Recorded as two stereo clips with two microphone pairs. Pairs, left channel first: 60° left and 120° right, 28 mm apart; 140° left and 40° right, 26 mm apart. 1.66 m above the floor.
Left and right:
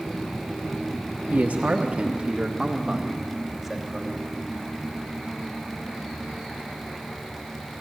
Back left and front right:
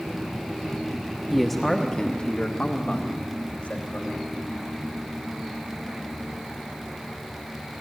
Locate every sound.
1.3 s a man speaking: 130° right, 1.4 m; by 4.1 s 155° left, 3.5 m